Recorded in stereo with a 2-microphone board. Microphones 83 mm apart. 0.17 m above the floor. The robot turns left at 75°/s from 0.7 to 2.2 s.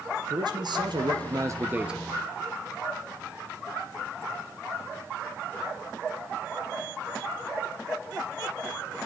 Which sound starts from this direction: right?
A man speaking, at 0.3 s.